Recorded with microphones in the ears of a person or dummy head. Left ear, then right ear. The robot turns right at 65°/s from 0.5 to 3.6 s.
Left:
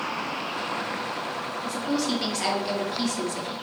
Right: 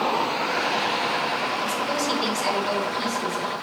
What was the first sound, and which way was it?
A woman speaking, 20° right.